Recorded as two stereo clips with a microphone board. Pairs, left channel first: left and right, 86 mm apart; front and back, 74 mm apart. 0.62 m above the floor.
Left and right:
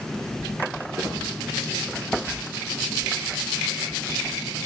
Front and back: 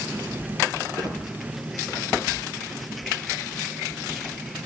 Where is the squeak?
150° right, 3 m.